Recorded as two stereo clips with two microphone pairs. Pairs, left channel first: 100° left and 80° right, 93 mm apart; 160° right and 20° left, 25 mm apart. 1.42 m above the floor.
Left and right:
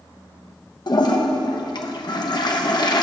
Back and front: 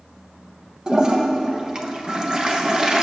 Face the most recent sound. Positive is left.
turn(degrees=80)